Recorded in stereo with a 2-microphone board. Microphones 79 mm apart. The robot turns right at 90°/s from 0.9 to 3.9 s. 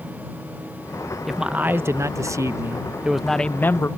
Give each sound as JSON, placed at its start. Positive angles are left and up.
{"t": 1.3, "sound": "a man speaking", "azimuth_deg": 180}